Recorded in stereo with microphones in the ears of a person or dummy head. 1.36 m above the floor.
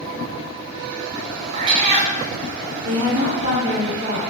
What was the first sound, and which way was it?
A cat meowing, 40° right (ahead or behind).